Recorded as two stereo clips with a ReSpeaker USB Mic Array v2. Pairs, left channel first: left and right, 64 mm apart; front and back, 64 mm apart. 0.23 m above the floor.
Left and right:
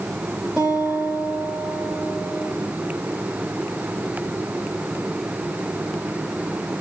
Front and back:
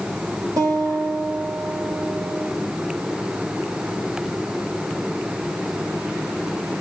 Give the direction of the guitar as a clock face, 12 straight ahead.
6 o'clock.